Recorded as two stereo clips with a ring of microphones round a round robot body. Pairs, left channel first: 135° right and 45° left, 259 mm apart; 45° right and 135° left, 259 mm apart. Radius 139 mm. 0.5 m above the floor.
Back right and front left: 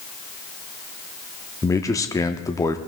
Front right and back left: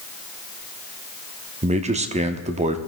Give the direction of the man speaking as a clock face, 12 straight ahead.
7 o'clock.